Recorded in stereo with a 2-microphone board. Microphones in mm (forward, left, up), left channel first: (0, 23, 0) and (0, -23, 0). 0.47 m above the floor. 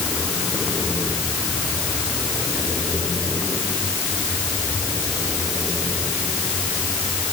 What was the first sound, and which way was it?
Only background noise.